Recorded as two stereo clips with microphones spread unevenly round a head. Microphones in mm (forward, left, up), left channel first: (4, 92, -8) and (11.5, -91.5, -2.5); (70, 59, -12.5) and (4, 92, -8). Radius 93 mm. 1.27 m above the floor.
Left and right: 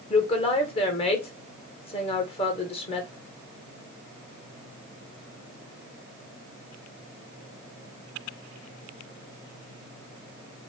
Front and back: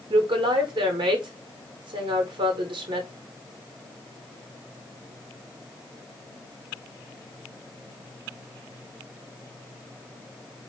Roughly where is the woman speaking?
Behind left.